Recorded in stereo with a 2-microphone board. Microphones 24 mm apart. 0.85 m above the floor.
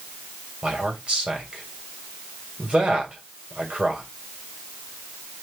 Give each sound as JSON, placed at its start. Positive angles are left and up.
{"t": 0.6, "sound": "a man speaking", "side_deg": -50, "distance_m": 3.5}